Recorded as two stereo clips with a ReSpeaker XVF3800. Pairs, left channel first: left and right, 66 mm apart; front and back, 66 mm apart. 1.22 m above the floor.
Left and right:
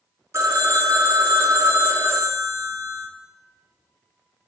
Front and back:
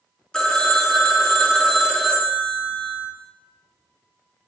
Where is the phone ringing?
80° right, 0.5 m.